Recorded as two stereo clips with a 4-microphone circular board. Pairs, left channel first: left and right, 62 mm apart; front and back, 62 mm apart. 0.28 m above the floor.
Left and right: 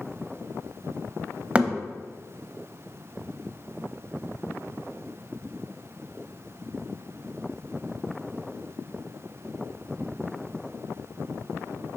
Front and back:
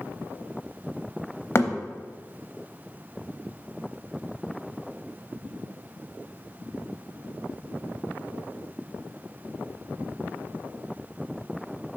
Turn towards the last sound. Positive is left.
turn(degrees=-25)